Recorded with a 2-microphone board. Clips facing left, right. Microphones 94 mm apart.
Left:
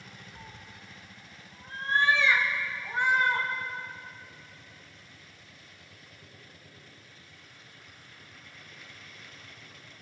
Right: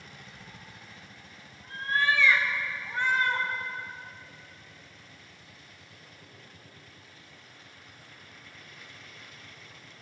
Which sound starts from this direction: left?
A cat meowing, at 0.3 s.